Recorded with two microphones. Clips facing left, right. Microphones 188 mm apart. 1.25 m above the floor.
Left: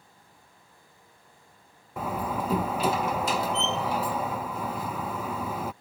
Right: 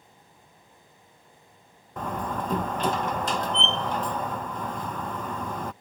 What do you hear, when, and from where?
2.0 s a door slam: 5° left (ahead or behind)